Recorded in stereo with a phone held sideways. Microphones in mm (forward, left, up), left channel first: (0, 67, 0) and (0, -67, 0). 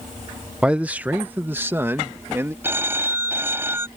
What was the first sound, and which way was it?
A man speaking, 5° right (ahead or behind).